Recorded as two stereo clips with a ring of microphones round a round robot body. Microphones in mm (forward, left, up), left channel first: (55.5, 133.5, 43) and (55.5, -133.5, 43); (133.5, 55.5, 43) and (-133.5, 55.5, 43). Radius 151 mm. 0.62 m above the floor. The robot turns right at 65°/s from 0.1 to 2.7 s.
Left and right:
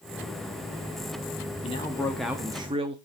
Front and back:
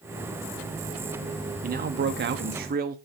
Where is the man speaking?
140° left, 0.8 m; by 3.0 s 150° right, 0.8 m.